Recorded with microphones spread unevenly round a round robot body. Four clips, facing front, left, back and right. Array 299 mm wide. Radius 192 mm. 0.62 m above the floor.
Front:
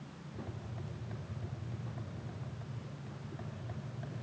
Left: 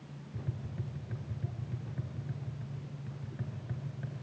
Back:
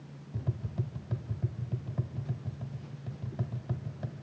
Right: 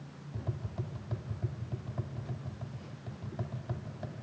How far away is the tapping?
About 1.2 m.